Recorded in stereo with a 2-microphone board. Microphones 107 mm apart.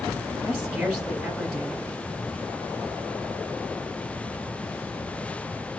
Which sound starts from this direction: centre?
A woman speaking, at 0.5 s.